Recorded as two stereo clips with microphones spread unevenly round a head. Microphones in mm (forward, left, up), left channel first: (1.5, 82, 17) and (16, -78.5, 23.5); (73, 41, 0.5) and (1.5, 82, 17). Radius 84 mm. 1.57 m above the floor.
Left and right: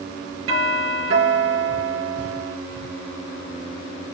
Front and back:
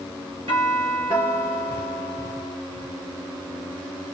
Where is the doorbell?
145° right, 4 m.